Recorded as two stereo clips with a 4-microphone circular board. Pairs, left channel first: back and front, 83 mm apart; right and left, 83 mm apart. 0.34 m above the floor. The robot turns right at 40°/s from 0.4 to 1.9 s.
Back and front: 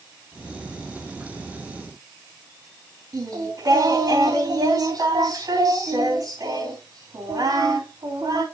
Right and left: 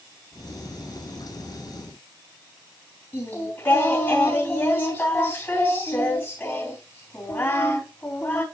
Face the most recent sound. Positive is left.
turn(degrees=-30)